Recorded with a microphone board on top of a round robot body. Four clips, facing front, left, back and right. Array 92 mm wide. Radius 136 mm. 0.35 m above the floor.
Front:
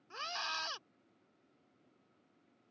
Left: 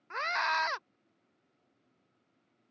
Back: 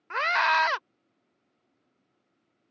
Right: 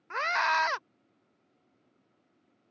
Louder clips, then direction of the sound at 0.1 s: Right 4 dB, back 18 dB; 170° right.